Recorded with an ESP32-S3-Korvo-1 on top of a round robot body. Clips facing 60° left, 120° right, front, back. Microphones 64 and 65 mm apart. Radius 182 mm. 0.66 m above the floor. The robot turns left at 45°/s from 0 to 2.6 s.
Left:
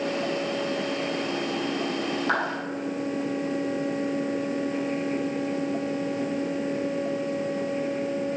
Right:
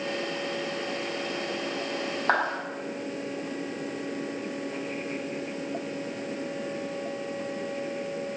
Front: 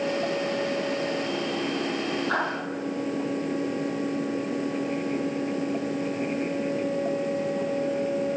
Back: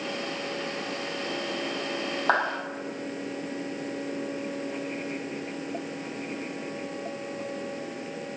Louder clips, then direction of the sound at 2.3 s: Right 2 dB, back 4 dB; 170° right.